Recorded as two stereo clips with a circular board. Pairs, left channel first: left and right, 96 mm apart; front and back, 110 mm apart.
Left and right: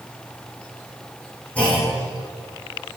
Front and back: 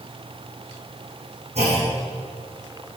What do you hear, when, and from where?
1.6 s a clunk: 165° left, 5 m